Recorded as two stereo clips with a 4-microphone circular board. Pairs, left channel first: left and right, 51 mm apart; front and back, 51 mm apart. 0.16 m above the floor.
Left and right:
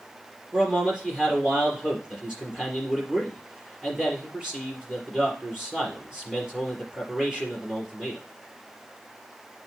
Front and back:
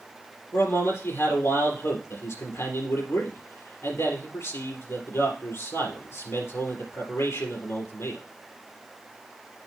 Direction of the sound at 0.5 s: 10° right.